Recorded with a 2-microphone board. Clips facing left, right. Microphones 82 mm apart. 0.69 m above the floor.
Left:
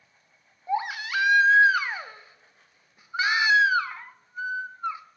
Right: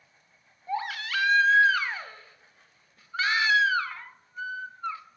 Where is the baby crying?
15° left (ahead or behind), 0.5 m.